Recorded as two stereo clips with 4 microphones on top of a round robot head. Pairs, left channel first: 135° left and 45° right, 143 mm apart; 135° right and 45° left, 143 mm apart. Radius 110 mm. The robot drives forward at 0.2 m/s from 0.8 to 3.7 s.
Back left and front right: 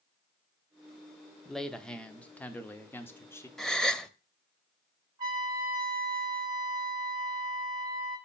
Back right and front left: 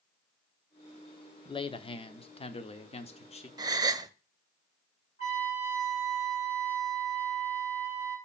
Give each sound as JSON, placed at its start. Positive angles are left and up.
{"t": 1.4, "sound": "a man speaking", "azimuth_deg": -140, "distance_m": 0.8}
{"t": 3.6, "sound": "a gasp", "azimuth_deg": 50, "distance_m": 0.7}
{"t": 5.2, "sound": "a trumpet", "azimuth_deg": -100, "distance_m": 2.5}